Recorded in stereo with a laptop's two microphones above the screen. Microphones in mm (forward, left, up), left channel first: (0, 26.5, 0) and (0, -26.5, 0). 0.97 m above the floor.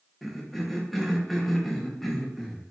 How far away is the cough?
About 0.6 m.